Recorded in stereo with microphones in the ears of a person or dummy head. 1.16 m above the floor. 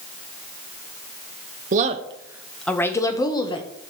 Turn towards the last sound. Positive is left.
turn(degrees=25)  # may be behind; listen again after turning